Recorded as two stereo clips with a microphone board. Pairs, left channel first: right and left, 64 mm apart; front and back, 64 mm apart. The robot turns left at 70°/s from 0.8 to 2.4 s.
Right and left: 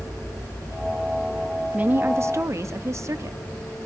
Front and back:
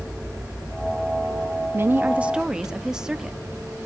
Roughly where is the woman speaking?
Behind left.